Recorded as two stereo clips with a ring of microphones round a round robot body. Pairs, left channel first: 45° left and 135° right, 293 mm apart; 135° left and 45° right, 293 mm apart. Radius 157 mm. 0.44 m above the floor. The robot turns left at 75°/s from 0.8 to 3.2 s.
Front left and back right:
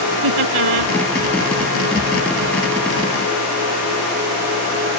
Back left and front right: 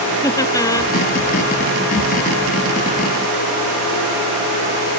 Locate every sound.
0.2 s laughter: 145° right; by 0.9 s 155° right